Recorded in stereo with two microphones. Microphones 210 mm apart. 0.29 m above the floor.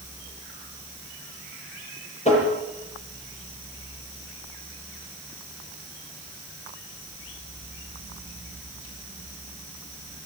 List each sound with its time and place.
2.2 s tapping: 30° left (ahead or behind), 7 m